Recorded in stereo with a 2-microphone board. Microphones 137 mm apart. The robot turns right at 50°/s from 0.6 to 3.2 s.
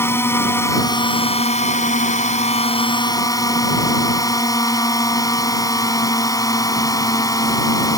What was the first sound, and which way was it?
A drone, 20° left.